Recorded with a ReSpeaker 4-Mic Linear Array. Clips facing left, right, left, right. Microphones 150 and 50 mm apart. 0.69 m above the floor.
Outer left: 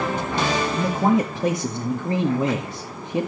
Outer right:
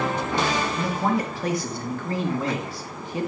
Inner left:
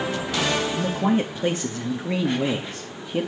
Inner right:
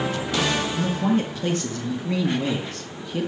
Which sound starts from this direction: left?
A man speaking, at 0.7 s.